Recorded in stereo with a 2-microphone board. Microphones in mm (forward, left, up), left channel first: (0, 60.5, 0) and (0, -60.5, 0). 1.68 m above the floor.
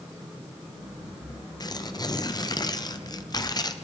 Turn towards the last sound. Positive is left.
turn(degrees=35)  # may be behind; listen again after turning